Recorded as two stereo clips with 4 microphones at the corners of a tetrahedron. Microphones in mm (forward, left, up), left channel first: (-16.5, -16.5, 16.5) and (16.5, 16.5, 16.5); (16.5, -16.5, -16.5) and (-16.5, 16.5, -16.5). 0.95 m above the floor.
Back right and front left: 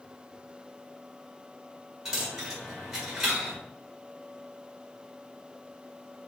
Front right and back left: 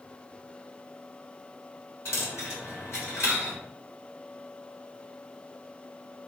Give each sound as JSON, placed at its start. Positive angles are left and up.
{"t": 2.0, "sound": "a dropped coin", "azimuth_deg": -35, "distance_m": 1.8}